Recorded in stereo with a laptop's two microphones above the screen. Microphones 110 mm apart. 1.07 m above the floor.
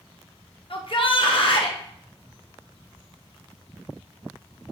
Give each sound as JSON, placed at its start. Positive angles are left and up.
{"t": 0.7, "sound": "a shout", "side_deg": 50, "distance_m": 0.8}